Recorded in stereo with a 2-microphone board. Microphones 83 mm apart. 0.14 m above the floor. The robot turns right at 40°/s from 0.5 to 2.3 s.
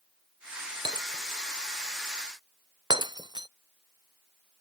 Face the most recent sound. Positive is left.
turn(degrees=-60)  # may be behind; listen again after turning